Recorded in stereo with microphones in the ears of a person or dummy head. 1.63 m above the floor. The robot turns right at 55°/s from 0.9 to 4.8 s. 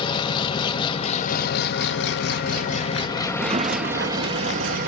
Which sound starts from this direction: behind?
A sliding door, at 3.3 s.